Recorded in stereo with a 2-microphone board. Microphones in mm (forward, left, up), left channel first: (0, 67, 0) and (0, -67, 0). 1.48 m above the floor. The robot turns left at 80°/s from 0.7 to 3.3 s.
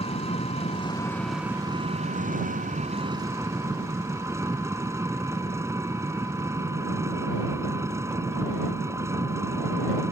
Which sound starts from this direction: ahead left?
An engine running, at 0.0 s.